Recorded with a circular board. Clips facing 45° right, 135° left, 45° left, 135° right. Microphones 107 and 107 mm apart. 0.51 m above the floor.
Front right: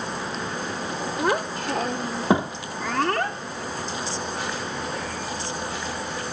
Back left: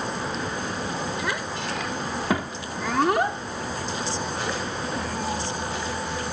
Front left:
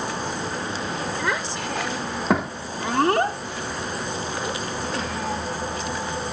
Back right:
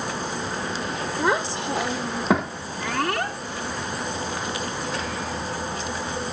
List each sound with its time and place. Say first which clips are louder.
1.2 s a child speaking: front right 5 dB, back right 3 dB; 80° right; by 5.4 s 85° left